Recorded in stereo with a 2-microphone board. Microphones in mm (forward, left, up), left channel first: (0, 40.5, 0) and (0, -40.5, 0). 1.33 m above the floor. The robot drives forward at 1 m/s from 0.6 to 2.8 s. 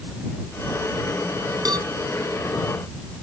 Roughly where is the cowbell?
Right.